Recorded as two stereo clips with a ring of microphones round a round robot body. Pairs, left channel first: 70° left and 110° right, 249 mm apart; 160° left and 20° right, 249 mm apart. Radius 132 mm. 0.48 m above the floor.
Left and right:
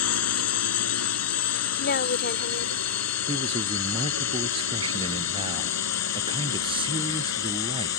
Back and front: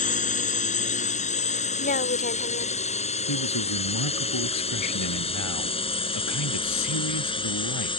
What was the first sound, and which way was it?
A drone, 95° left.